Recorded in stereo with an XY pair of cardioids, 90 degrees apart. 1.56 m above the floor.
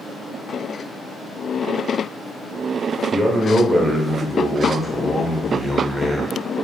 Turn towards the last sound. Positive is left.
turn(degrees=-20)